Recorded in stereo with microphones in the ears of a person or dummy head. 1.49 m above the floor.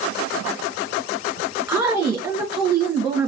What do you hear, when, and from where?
1.7 s a woman speaking: 5° right (ahead or behind), 1.5 m